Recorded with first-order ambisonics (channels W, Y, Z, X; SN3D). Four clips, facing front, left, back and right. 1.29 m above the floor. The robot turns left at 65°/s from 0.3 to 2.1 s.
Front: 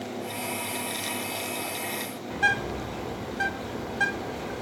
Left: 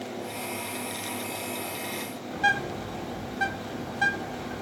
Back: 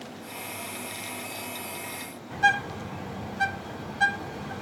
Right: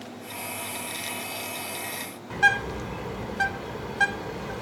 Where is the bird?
70° right, 5 m.